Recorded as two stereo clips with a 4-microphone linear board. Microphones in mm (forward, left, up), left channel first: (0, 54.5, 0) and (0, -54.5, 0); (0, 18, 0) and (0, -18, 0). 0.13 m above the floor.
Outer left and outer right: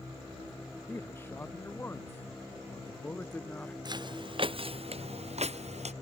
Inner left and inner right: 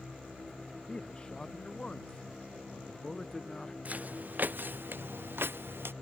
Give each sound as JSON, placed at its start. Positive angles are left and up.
{"t": 0.9, "sound": "a man speaking", "side_deg": 20}
{"t": 3.9, "sound": "footsteps", "side_deg": -40}